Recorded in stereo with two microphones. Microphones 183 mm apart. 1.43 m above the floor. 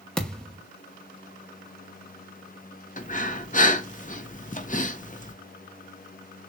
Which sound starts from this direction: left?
Breathing, at 3.0 s.